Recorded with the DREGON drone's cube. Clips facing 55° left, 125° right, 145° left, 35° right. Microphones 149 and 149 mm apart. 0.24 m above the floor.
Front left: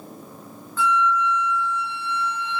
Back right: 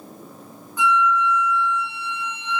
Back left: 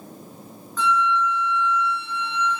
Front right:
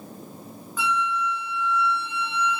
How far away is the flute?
About 0.8 m.